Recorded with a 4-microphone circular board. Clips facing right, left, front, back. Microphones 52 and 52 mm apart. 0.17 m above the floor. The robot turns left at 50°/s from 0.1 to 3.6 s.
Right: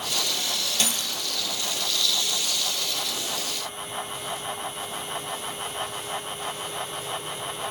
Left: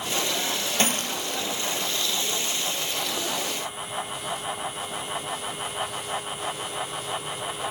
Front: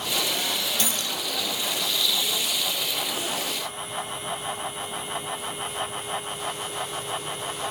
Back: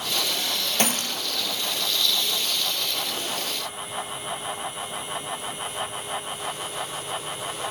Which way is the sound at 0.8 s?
145° left.